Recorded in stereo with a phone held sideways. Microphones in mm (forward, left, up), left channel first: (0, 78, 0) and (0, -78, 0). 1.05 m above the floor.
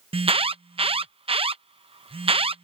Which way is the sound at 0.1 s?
35° right (ahead or behind).